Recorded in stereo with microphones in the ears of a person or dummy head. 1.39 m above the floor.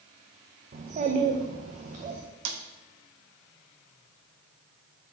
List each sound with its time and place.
0.7 s a child speaking: 40° right (ahead or behind), 0.9 m
2.5 s a snare drum: 70° right (ahead or behind), 1.0 m